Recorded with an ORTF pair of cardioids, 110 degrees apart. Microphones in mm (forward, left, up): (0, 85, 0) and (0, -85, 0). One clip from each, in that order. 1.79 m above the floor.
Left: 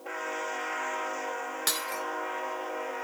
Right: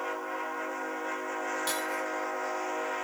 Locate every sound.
1.7 s breaking glass: 50° left, 4 m